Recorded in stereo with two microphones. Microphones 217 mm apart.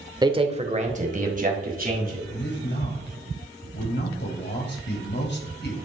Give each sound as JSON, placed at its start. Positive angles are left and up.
{"t": 0.2, "sound": "a man speaking", "side_deg": -20, "distance_m": 1.0}
{"t": 2.3, "sound": "a man speaking", "side_deg": 50, "distance_m": 2.5}